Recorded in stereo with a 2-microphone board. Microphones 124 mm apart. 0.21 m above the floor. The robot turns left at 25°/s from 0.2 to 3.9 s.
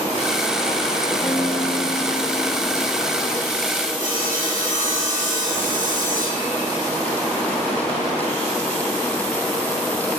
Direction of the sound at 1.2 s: 110° left.